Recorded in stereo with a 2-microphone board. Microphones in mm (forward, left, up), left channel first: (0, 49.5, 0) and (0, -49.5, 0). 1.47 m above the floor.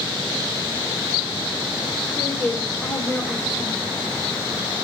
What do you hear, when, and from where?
2.2 s a woman speaking: 10° right (ahead or behind), 7 m